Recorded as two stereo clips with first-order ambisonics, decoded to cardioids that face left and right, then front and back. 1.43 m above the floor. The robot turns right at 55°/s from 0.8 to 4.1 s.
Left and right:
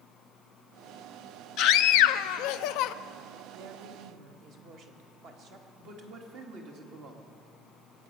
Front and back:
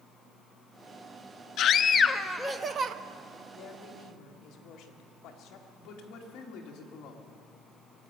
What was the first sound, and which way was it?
A scream, 45° left.